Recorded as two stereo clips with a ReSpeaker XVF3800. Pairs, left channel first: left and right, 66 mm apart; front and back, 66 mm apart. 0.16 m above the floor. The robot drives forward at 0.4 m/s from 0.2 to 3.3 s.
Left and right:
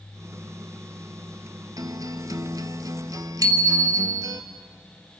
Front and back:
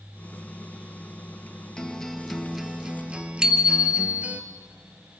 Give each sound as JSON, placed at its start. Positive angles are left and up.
{"t": 1.8, "sound": "a guitar", "azimuth_deg": -80, "distance_m": 1.2}
{"t": 3.4, "sound": "a bicycle bell", "azimuth_deg": -100, "distance_m": 2.0}